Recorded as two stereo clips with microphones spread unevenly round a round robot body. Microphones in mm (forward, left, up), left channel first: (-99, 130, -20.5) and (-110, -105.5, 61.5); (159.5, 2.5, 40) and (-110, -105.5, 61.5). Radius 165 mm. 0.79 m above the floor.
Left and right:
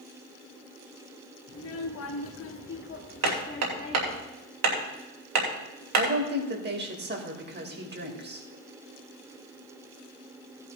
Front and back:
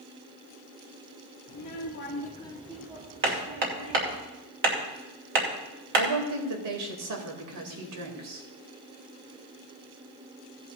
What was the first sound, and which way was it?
A child speaking, 55° left.